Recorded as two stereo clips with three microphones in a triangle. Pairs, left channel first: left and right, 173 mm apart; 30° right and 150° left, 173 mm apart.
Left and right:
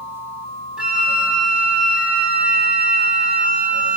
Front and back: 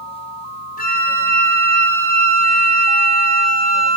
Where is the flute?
5° right, 2.5 m.